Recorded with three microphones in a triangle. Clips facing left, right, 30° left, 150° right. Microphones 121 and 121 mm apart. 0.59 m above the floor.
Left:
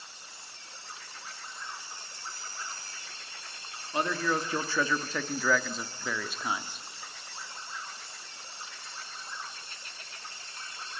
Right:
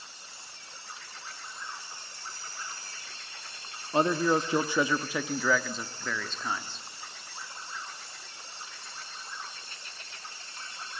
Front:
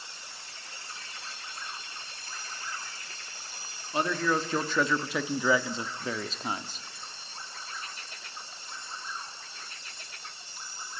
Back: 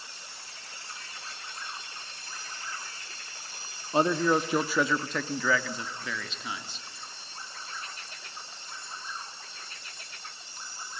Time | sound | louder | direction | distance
3.9 | a man speaking | right 5 dB, back 4 dB | 120° right | 1.1 m